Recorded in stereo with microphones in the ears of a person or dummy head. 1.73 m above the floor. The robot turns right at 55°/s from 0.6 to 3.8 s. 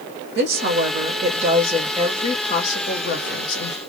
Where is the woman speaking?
75° right, 1.3 m; by 3.8 s 100° left, 1.3 m.